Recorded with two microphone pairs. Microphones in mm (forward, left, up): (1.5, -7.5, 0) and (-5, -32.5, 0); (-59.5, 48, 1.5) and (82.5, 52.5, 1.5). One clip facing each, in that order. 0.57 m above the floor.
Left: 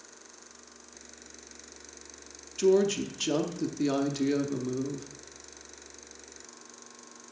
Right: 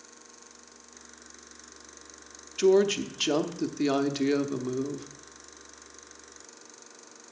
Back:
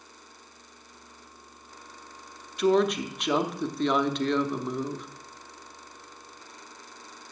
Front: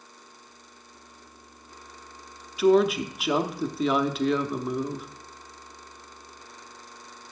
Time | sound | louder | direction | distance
2.6 | a woman speaking | right 2 dB, front 3 dB | 75° right | 0.6 m